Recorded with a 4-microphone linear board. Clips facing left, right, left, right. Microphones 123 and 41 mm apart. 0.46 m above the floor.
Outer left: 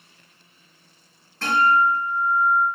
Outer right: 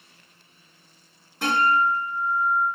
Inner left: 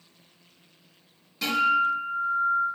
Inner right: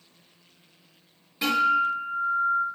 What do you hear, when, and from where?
1.4 s a guitar: 15° right (ahead or behind), 4 m